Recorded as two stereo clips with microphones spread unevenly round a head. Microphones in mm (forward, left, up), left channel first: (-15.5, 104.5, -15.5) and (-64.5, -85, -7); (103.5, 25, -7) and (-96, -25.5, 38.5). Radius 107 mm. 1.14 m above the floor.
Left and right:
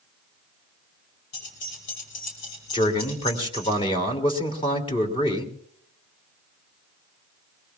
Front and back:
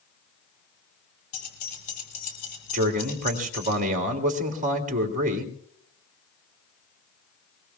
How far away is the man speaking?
About 2.5 m.